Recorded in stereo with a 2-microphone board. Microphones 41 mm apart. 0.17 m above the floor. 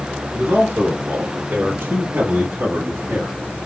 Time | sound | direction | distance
0.3 | a man speaking | 60° right (ahead or behind) | 4 m